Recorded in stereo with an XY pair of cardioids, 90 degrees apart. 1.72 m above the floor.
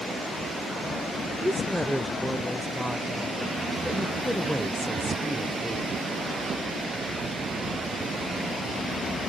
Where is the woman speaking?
Straight ahead, 1.0 m.